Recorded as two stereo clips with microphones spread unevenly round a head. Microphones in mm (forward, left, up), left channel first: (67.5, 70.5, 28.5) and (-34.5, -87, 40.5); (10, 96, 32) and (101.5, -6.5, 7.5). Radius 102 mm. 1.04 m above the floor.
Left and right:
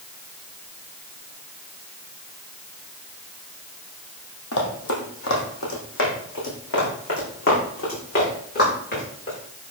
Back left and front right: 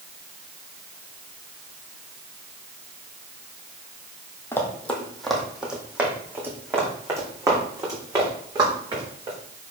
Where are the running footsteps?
65° left, 1.9 m; by 9.4 s 15° left, 5 m.